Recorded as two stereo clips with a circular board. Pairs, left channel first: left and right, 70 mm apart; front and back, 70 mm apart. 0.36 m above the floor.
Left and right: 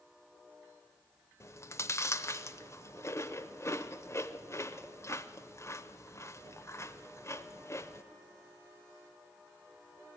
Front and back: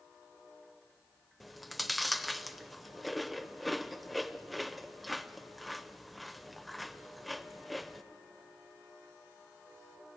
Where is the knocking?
No knocking in this recording.